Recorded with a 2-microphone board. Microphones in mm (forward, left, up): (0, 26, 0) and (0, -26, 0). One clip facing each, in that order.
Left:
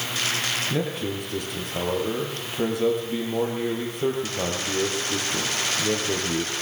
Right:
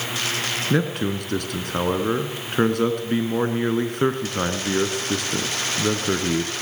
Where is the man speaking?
65° right (ahead or behind), 3.5 m.